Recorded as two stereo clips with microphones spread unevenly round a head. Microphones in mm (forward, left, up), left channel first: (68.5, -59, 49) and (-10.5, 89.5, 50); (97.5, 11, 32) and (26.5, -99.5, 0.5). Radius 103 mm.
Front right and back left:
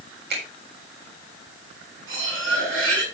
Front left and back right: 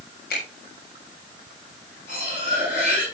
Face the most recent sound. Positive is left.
turn(degrees=115)